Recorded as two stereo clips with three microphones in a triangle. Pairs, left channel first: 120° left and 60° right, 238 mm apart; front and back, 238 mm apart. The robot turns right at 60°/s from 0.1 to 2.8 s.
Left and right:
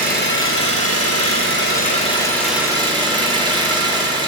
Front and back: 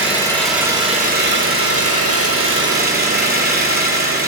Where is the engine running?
70° left, 3 m; by 4.3 s 130° right, 3 m.